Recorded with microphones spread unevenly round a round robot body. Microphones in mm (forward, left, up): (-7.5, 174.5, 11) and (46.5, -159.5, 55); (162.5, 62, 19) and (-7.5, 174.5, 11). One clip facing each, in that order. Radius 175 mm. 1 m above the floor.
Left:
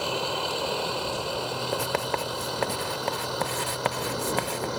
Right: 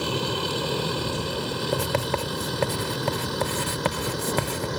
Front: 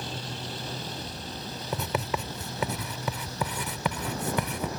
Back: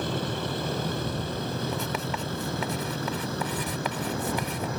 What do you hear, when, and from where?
0.0 s a vehicle: 150° right
1.7 s writing: 70° right